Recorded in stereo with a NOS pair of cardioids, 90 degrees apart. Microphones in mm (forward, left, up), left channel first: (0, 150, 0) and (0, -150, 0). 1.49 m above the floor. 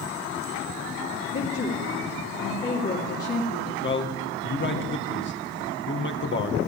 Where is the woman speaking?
50° left, 3 m.